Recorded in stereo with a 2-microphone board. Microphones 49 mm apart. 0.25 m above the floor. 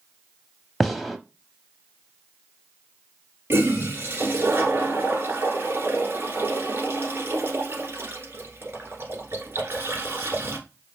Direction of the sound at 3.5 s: 50° right (ahead or behind).